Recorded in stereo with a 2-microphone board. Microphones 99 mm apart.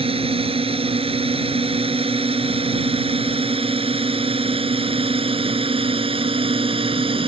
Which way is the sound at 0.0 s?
75° right (ahead or behind).